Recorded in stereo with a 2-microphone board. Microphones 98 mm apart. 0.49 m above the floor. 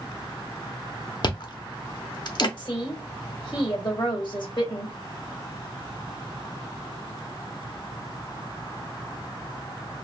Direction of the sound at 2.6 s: 50° left (ahead or behind).